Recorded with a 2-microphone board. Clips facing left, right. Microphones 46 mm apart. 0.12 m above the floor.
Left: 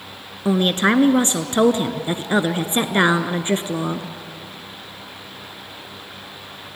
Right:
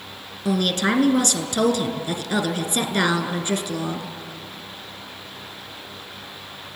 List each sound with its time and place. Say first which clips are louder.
0.5 s a woman speaking: left 4 dB; 25° left (ahead or behind), 1.5 m